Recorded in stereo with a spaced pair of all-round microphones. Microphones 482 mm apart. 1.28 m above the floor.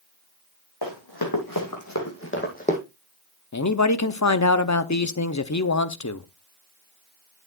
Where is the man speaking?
35° left (ahead or behind), 0.6 m.